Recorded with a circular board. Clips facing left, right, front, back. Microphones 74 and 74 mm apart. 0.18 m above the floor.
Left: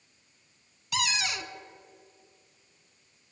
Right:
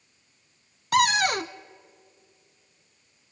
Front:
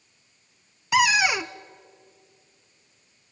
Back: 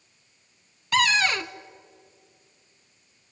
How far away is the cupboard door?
About 0.6 m.